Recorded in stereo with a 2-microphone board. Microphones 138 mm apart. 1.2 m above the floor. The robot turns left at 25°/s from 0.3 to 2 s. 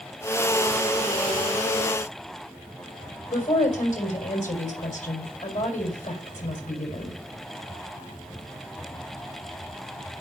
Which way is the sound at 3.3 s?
70° left (ahead or behind).